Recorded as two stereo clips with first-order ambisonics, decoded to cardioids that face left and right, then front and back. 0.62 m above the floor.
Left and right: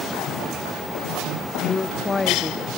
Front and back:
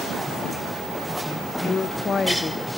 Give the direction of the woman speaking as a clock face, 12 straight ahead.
11 o'clock.